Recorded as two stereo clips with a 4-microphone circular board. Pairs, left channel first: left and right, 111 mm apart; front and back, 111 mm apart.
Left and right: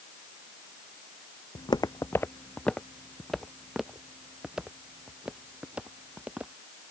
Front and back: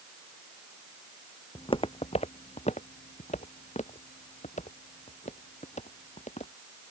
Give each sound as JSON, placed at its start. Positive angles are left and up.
{"t": 1.6, "sound": "footsteps", "azimuth_deg": 50}